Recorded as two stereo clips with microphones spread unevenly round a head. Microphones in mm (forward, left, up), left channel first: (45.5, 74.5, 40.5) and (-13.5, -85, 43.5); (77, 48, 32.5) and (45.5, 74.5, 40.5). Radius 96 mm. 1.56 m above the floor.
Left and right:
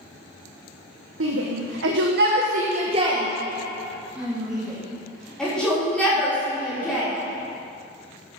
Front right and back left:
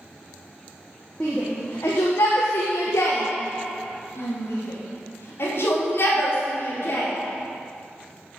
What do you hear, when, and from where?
1.2 s a shout: 120° right, 1.4 m; by 7.1 s 10° right, 4.5 m